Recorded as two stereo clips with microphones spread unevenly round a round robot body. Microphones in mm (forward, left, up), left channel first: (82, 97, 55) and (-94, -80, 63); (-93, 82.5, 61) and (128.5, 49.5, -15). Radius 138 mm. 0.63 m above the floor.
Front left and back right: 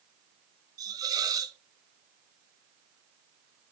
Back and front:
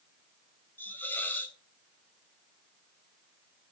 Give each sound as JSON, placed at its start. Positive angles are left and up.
{"t": 0.8, "sound": "a hiss", "azimuth_deg": -75, "distance_m": 0.7}